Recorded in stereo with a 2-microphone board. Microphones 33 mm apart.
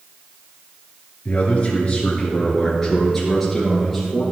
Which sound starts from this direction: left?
A man speaking, at 1.2 s.